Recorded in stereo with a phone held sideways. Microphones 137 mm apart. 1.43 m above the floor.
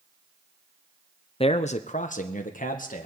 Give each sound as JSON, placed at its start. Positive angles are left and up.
{"t": 1.4, "sound": "a man speaking", "side_deg": 45, "distance_m": 0.7}